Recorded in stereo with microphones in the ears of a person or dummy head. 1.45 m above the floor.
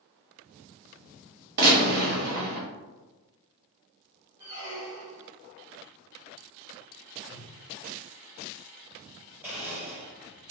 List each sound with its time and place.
1.6 s a gunshot: 55° right (ahead or behind), 1.2 m
4.4 s a squeak: 15° right (ahead or behind), 0.9 m
7.3 s a whoosh: centre (ahead or behind), 0.6 m
9.4 s a blender: 5° right (ahead or behind), 1.0 m